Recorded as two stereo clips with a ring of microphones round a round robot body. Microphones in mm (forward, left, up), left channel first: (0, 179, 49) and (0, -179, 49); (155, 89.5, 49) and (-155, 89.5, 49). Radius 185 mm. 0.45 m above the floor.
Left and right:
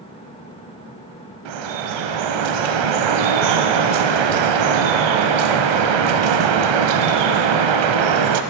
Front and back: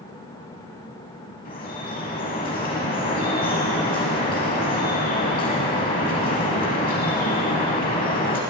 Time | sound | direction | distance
1.4 | dripping | 70° right | 0.7 m